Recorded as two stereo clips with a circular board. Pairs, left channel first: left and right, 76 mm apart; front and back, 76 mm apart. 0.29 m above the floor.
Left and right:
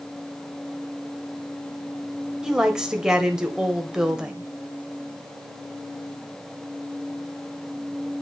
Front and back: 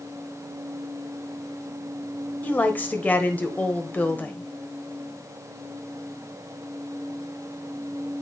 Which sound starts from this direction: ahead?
A woman speaking, at 2.4 s.